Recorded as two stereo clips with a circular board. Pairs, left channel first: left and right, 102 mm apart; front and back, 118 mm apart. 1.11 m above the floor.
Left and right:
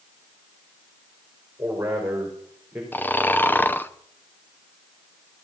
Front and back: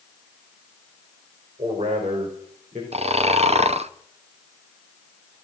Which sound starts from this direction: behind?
Snoring, at 2.9 s.